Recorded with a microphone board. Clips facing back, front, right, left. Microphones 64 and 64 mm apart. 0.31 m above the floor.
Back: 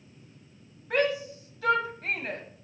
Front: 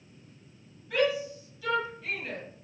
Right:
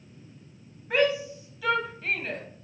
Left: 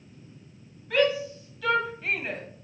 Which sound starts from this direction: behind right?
A shout, at 0.9 s.